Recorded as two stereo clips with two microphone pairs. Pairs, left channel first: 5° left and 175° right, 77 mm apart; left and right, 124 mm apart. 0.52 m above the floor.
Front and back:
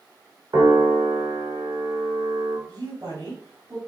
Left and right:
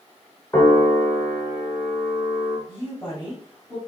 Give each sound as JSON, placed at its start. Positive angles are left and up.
{"t": 0.5, "sound": "a piano", "azimuth_deg": 155, "distance_m": 2.5}
{"t": 2.7, "sound": "a woman speaking", "azimuth_deg": 140, "distance_m": 3.5}